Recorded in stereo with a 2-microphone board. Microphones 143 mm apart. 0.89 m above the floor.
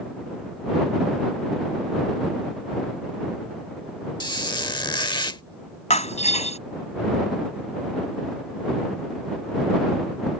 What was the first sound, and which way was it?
A squeak, 30° left (ahead or behind).